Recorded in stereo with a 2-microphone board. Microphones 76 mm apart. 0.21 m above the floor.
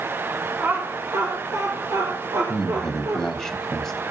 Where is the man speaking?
5° left (ahead or behind), 1.1 m.